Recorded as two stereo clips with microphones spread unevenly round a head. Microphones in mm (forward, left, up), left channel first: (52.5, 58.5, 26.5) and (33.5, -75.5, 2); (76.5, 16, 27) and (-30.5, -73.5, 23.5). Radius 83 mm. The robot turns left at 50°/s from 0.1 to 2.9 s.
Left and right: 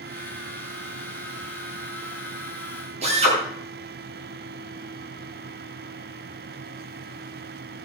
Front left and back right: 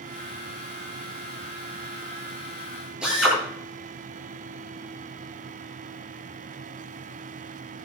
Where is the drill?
55° right, 9.5 m.